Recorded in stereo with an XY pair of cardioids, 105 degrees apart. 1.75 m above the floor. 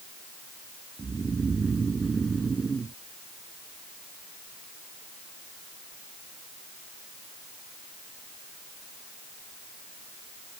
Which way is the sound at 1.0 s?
30° right.